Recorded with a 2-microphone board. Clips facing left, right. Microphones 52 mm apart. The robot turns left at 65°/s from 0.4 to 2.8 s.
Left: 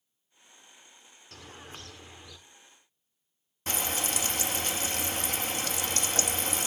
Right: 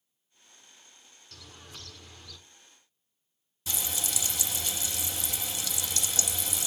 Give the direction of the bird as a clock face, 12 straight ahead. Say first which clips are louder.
Left 4 dB; 9 o'clock.